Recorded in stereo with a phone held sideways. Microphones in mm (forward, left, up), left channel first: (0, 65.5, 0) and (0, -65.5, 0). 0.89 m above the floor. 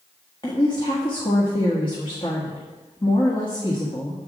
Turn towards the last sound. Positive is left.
turn(degrees=40)  # may be behind; listen again after turning